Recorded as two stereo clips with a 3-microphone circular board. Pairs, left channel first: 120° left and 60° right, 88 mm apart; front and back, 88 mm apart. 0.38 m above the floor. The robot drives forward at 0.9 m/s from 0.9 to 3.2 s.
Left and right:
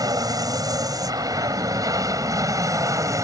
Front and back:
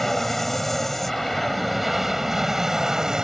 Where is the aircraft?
85° right; by 3.2 s 100° right.